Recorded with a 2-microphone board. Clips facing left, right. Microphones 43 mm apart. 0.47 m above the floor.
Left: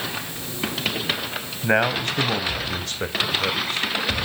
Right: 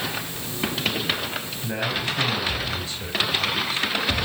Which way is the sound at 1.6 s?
65° left (ahead or behind).